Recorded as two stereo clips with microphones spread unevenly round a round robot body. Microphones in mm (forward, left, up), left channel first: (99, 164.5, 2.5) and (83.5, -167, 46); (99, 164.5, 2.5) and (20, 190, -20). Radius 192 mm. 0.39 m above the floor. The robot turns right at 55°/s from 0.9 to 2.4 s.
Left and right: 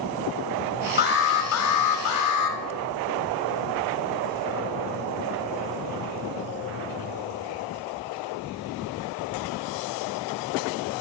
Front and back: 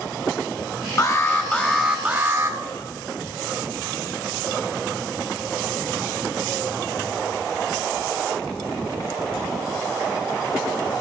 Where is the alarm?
30° left, 1.4 m; by 2.6 s 110° left, 1.4 m.